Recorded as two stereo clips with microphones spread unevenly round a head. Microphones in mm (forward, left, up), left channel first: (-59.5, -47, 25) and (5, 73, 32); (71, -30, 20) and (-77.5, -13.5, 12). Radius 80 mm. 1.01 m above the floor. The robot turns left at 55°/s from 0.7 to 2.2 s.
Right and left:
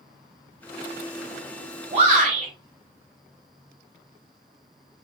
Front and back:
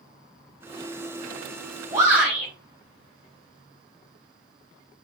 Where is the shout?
105° left, 5 m; by 2.5 s 90° left, 5 m.